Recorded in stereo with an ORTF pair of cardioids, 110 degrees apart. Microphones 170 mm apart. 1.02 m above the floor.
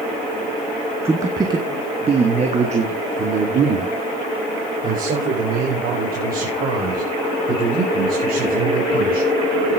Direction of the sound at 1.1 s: 15° right.